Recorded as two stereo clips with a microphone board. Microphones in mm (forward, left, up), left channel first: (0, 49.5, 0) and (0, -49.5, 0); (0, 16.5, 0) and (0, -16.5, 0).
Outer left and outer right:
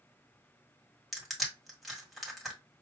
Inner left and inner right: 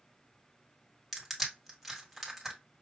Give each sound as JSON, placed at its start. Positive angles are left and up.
{"t": 1.1, "sound": "crushing", "side_deg": 0, "distance_m": 1.7}